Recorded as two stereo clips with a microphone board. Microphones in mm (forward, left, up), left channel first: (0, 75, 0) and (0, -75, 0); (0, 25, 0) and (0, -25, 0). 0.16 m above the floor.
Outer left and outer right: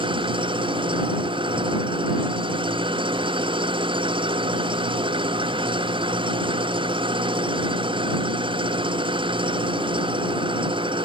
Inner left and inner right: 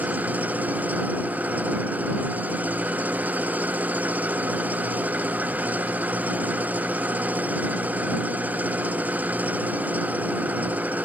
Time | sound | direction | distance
0.0 | an engine running | 35° right (ahead or behind) | ?